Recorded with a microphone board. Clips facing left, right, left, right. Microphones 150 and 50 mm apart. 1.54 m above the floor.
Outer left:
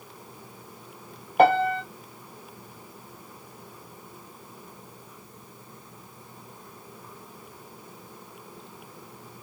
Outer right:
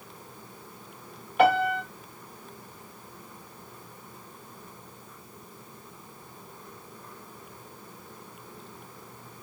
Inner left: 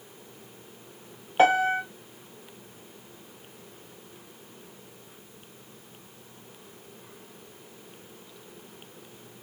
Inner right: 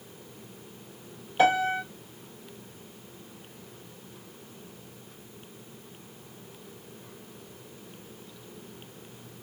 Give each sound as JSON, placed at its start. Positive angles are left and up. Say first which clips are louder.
{"t": 1.4, "sound": "a piano", "louder": "outer left 3 dB, inner left 2 dB", "side_deg": 40, "distance_m": 1.5}